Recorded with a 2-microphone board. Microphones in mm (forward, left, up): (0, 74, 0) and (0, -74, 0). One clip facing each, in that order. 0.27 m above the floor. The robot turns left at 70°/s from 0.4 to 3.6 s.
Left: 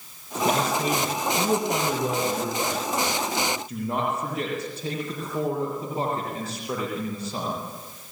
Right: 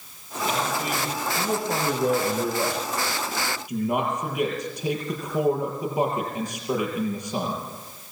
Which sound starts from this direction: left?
A man speaking, at 0.5 s.